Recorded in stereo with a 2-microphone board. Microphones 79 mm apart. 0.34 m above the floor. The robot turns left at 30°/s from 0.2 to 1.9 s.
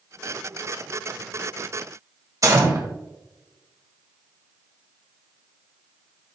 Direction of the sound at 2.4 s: 45° right (ahead or behind).